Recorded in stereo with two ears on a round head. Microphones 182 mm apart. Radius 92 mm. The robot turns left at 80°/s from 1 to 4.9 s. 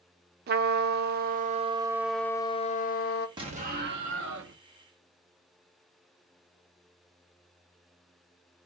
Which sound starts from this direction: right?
A trumpet, at 0.5 s.